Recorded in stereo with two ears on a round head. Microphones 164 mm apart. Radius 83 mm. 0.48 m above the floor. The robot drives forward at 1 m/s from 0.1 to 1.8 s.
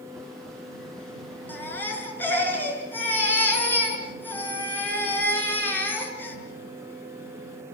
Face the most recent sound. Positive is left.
turn(degrees=10)  # may be behind; listen again after turning